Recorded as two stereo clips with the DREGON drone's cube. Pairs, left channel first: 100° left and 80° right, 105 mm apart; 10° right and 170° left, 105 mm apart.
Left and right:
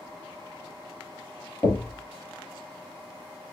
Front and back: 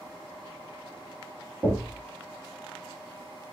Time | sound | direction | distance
1.6 | knocking | 115° left | 1.0 m